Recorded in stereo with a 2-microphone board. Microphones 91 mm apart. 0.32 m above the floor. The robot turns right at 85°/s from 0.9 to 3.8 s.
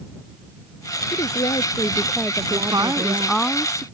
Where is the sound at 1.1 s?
80° left; by 3.5 s 80° right.